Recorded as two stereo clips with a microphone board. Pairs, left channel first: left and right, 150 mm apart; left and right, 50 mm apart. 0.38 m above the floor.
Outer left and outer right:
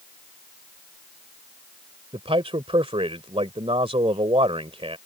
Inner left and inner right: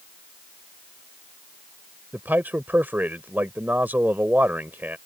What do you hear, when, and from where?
2.1 s a man speaking: 40° right (ahead or behind)